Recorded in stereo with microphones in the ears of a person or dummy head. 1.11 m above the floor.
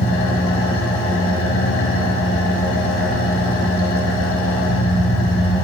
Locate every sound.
0.0 s an engine running: 65° left (ahead or behind), 2.5 m